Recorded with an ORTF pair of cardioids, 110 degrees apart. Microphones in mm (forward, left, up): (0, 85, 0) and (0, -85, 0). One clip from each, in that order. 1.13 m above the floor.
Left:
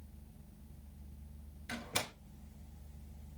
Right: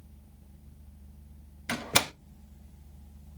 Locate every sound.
1.7 s a door slam: 55° right, 0.8 m